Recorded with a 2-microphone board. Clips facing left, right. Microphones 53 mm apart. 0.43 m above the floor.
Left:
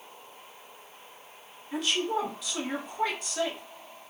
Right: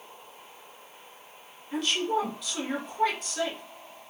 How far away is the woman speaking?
About 1.4 m.